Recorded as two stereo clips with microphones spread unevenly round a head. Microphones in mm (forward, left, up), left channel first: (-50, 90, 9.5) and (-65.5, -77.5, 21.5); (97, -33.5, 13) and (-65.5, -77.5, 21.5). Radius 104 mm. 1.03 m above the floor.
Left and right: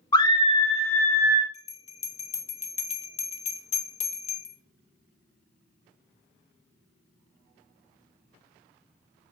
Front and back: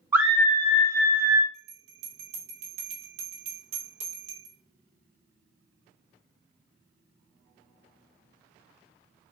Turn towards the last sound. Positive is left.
turn(degrees=135)